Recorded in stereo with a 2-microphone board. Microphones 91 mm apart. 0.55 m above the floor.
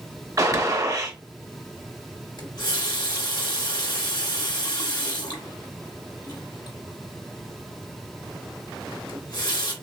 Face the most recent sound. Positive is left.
turn(degrees=50)  # may be behind; listen again after turning